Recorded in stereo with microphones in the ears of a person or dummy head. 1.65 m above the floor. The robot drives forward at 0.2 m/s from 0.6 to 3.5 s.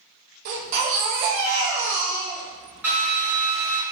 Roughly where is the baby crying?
Right.